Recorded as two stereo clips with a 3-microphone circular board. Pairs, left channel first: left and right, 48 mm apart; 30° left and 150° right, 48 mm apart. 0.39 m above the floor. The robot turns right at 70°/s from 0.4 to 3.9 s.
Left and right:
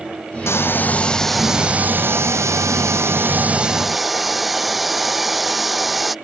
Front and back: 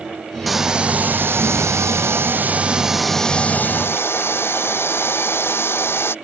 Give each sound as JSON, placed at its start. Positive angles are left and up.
{"t": 0.5, "sound": "a hair dryer", "azimuth_deg": 120}